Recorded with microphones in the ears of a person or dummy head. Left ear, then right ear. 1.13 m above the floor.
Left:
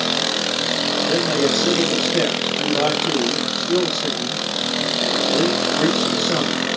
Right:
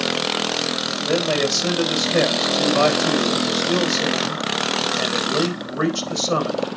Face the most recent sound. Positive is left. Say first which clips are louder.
# right 1 dB
turn(degrees=-70)  # may be behind; listen again after turning